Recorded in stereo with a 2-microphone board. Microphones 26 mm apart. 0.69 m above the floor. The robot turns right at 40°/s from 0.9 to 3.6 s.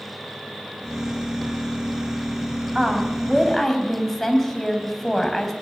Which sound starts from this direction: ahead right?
A woman speaking, at 2.8 s.